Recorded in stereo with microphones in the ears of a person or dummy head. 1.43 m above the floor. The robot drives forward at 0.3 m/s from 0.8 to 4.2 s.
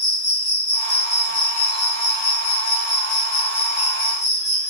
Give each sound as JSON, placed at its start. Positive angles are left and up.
{"t": 0.0, "sound": "an insect", "side_deg": 65, "distance_m": 3.5}